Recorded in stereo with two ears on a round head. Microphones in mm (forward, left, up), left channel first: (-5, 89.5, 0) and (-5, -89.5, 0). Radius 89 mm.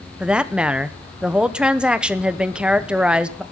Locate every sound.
0.2 s a woman speaking: 5° right (ahead or behind), 0.9 m